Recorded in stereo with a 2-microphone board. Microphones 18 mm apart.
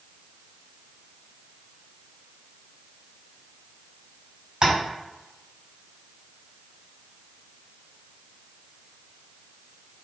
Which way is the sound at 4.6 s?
50° right (ahead or behind).